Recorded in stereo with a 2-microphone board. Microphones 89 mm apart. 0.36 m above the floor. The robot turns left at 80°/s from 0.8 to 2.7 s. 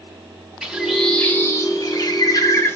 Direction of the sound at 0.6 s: 165° right.